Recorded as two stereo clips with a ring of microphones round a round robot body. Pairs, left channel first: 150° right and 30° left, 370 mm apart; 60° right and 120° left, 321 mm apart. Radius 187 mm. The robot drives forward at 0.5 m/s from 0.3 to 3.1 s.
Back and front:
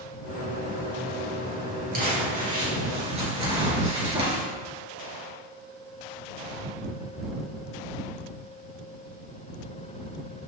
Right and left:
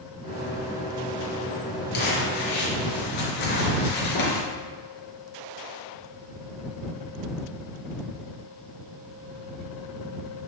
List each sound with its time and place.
1.9 s crumpling: 40° right, 4 m; by 4.4 s 45° right, 3.5 m